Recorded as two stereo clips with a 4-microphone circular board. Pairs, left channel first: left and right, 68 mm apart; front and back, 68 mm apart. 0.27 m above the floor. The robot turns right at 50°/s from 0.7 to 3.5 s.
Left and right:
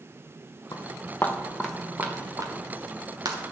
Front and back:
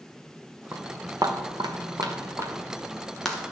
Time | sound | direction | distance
0.7 | footsteps | 120° left | 1.6 m